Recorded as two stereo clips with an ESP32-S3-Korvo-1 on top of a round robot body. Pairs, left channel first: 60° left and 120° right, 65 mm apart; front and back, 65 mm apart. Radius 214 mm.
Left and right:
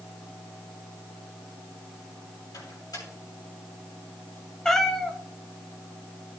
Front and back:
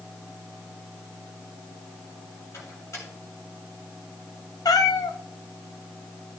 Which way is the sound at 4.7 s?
25° right.